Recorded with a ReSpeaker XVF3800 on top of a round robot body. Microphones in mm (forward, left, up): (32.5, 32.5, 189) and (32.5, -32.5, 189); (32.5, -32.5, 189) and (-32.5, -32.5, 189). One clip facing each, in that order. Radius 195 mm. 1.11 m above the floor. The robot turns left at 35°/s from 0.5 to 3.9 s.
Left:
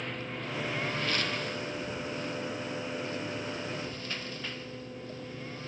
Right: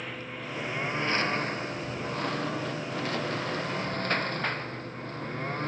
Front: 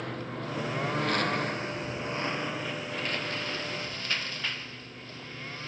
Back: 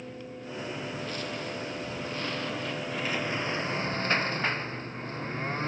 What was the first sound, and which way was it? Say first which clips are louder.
A lawn mower: even, front 5 dB; 5° right.